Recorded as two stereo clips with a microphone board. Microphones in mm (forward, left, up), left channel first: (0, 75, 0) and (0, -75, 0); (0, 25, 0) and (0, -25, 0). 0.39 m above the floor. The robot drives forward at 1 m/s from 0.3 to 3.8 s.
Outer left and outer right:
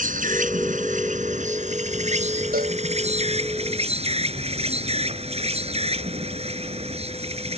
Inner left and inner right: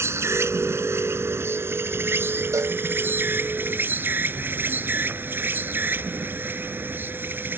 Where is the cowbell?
80° right.